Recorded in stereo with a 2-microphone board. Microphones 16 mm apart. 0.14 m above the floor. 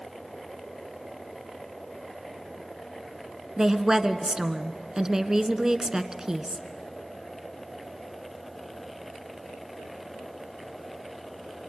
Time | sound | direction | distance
3.6 | a woman speaking | 30° right (ahead or behind) | 1.3 m